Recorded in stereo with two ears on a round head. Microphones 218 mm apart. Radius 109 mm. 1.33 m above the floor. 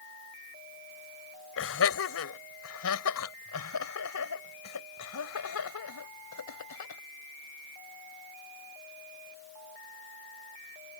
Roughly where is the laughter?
Left.